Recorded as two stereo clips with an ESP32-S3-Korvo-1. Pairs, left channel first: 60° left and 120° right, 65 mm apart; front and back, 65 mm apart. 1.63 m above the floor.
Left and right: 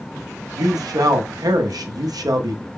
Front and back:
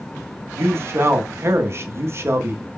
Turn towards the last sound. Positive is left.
turn(degrees=-130)